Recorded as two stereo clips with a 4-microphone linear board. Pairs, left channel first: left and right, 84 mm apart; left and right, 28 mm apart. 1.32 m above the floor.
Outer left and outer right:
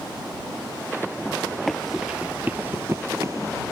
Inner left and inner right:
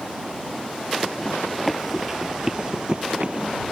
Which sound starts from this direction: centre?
Running footsteps, at 1.7 s.